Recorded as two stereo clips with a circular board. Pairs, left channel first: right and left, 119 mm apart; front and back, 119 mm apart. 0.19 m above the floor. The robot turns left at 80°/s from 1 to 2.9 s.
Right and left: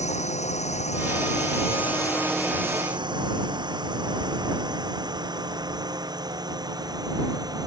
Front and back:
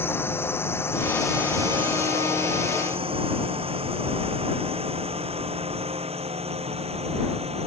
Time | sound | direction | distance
0.0 | a drone | 70° right | ?